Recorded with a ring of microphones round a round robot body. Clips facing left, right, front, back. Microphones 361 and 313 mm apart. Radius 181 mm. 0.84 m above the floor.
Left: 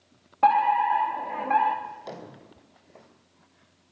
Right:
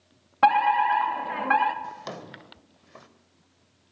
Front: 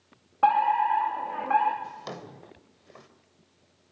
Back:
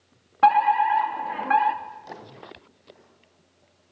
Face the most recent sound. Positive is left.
turn(degrees=-40)